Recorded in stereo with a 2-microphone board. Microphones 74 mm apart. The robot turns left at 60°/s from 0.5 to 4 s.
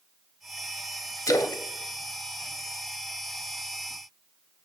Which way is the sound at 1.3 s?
50° left (ahead or behind).